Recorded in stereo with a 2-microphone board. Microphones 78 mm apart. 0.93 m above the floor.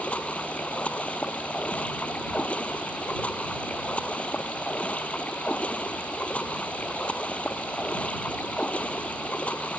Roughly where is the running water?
Centre.